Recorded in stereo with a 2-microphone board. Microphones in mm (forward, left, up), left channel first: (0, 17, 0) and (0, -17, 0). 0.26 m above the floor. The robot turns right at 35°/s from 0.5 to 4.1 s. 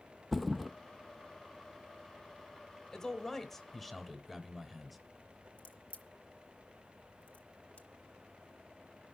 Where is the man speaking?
10° left (ahead or behind), 1.0 m; by 5.0 s 5° right (ahead or behind), 1.0 m.